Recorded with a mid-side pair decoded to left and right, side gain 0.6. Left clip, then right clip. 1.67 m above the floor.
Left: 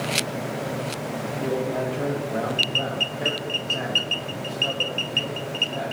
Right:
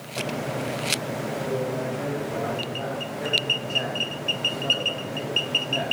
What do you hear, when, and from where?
1.4 s a man speaking: 40° left, 2.5 m; by 5.9 s 30° right, 1.9 m